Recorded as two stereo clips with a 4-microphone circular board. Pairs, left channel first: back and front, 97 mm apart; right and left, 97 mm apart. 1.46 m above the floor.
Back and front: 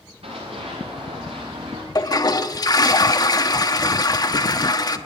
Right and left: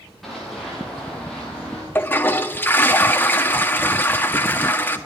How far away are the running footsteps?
About 7 m.